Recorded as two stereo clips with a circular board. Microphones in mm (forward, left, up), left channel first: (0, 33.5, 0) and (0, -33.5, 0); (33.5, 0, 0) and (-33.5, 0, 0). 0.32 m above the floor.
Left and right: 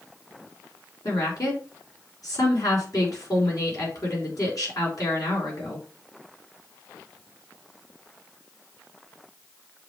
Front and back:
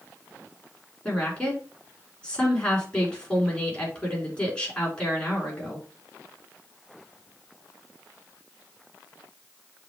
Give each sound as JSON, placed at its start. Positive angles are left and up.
{"t": 1.1, "sound": "a woman speaking", "azimuth_deg": 70, "distance_m": 4.0}